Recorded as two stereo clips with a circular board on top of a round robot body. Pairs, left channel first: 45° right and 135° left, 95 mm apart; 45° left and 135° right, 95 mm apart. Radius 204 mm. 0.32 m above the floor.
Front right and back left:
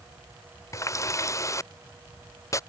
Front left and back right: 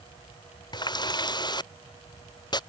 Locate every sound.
0.7 s a running tap: 10° left